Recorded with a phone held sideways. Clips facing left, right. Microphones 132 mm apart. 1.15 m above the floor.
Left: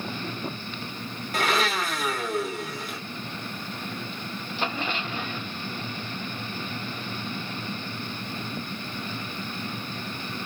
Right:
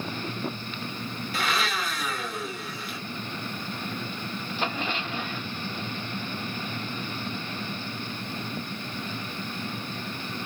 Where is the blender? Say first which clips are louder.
Left 4 dB; 45° left (ahead or behind), 1.1 m.